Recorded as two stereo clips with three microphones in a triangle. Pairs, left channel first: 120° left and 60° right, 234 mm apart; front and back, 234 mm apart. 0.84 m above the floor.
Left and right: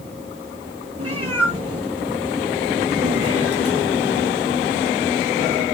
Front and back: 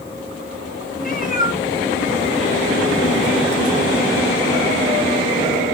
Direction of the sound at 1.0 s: 50° right.